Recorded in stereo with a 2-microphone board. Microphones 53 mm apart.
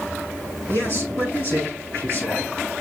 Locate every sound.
0.7 s a man speaking: 50° left (ahead or behind), 6 m